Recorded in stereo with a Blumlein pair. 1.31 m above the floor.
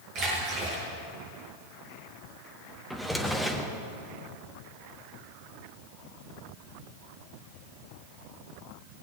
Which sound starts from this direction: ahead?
A drawer, at 2.9 s.